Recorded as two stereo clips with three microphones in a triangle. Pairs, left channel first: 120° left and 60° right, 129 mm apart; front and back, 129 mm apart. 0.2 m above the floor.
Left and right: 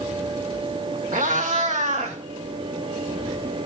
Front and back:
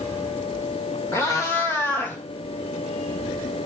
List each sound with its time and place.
1.1 s a cat meowing: 65° right, 3 m; by 2.2 s 75° right, 2.5 m